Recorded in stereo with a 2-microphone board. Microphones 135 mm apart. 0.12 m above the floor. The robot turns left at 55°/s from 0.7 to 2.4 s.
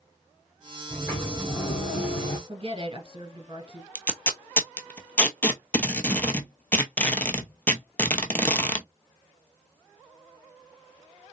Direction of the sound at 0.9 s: Straight behind.